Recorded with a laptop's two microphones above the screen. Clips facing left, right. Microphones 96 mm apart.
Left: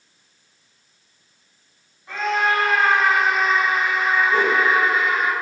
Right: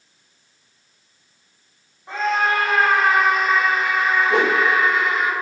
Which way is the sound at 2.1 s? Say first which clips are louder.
Right 1 dB; 30° right (ahead or behind).